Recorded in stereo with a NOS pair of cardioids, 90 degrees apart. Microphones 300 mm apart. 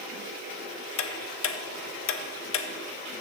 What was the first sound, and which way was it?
Ticking, 45° left.